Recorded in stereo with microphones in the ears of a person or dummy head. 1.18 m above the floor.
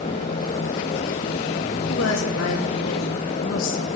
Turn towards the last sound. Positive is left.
turn(degrees=75)  # may be behind; listen again after turning